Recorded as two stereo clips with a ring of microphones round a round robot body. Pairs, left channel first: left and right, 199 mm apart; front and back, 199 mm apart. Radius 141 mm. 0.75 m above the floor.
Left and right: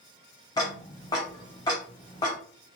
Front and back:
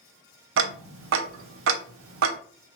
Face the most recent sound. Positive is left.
turn(degrees=170)